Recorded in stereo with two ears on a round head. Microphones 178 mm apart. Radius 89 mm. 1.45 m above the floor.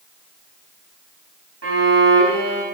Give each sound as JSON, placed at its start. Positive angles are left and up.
{"t": 1.6, "sound": "a violin", "side_deg": -80, "distance_m": 5.5}